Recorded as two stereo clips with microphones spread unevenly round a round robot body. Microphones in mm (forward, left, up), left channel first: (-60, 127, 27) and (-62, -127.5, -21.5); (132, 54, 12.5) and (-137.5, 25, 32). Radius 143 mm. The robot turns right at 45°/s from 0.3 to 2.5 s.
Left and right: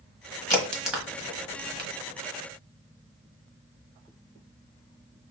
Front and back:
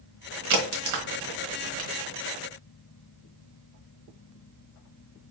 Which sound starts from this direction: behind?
A crack, at 0.5 s.